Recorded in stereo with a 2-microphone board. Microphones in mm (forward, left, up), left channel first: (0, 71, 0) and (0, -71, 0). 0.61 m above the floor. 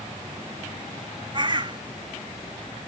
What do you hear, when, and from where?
1.3 s a bird: 35° right (ahead or behind)